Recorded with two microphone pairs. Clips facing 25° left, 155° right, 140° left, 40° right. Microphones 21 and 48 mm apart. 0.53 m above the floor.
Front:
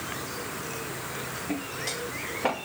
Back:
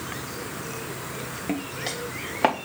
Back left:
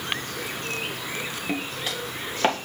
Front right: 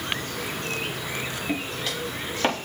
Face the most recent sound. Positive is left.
turn(degrees=-140)